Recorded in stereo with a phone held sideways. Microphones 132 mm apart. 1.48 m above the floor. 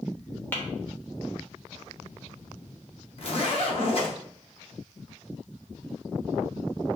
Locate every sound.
0.5 s tapping: 15° left (ahead or behind), 0.9 m
3.2 s a zipper: 45° left (ahead or behind), 0.9 m